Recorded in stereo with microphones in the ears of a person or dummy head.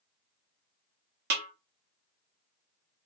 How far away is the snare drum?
About 0.7 m.